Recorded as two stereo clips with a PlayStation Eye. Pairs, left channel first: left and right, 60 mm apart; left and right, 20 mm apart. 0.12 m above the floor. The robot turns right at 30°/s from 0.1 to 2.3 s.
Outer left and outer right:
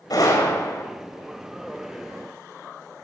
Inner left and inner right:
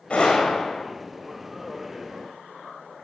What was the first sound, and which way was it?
A gunshot, 80° left.